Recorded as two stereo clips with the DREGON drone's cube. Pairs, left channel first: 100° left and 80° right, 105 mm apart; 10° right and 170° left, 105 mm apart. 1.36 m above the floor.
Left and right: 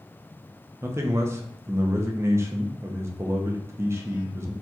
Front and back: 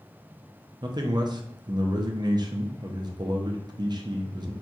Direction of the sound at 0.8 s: 140° right.